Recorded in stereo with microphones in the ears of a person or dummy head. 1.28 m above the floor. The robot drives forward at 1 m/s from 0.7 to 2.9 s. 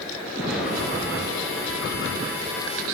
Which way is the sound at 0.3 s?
5° right (ahead or behind).